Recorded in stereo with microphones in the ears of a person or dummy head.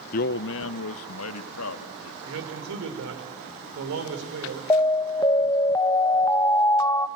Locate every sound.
0.1 s a man speaking: 40° left (ahead or behind), 0.5 m; by 2.1 s 85° left, 2.5 m
2.2 s a man speaking: 70° right (ahead or behind), 4.5 m
4.7 s an alarm: 25° left (ahead or behind), 0.8 m